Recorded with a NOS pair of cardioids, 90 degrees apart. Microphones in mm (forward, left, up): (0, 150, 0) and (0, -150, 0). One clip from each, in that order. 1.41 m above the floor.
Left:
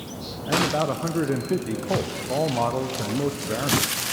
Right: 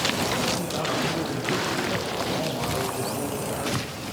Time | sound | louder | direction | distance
0.5 | a man speaking | left 4 dB | 40° left | 0.6 m